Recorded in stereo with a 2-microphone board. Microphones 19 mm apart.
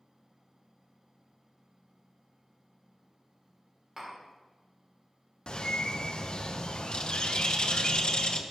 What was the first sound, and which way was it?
Tapping, 20° right (ahead or behind).